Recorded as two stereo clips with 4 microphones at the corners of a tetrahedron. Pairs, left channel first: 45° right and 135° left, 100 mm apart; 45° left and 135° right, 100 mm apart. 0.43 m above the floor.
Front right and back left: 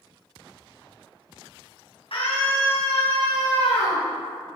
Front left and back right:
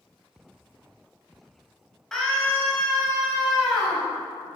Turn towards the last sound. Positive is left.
turn(degrees=-55)